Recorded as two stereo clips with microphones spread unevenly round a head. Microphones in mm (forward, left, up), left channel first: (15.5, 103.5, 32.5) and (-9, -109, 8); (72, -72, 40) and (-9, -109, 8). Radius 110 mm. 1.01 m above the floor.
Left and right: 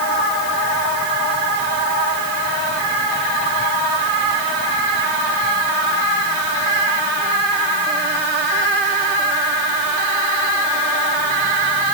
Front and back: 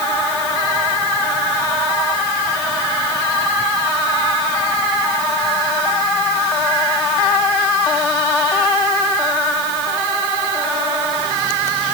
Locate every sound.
Only background noise.